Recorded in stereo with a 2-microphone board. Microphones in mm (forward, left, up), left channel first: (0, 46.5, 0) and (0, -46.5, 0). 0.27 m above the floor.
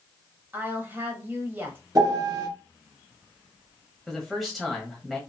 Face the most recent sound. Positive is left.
turn(degrees=0)  # may be behind; listen again after turning